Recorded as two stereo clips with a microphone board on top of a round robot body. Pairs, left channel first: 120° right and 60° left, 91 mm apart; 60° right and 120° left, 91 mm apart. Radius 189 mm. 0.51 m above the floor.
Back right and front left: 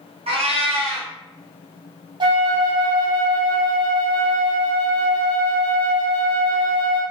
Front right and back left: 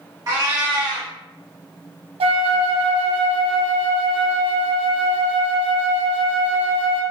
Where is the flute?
100° left, 0.8 m.